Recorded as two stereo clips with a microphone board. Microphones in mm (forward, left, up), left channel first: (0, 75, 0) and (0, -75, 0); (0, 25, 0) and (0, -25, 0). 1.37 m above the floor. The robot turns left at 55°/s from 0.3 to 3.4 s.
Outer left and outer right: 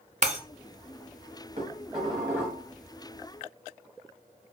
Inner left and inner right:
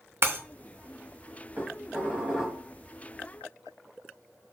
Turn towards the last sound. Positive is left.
turn(degrees=135)